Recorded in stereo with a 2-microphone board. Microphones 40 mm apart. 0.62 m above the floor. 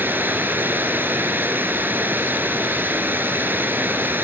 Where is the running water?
60° right (ahead or behind), 1.1 m.